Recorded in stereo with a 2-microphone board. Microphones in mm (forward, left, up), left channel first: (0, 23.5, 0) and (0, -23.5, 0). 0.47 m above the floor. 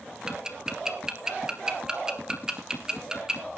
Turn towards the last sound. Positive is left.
turn(degrees=-15)  # may be behind; listen again after turning